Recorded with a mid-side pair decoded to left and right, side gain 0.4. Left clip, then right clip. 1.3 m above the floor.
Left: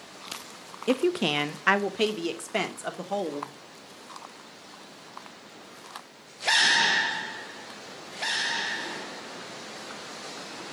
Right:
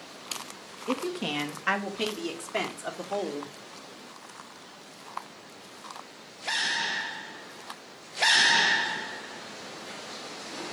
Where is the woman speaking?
70° left, 0.6 m; by 3.5 s 30° left, 1.8 m.